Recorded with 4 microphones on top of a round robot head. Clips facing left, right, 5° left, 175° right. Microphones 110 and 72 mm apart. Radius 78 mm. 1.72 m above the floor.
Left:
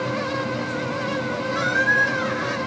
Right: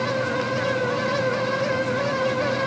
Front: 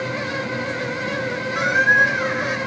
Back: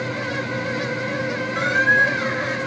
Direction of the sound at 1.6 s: 85° left.